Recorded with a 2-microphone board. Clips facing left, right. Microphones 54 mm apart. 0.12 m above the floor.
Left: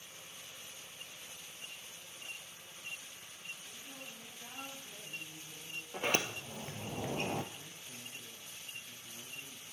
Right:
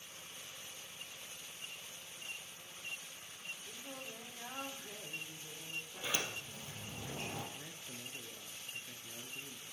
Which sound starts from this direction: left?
A sliding door, at 5.9 s.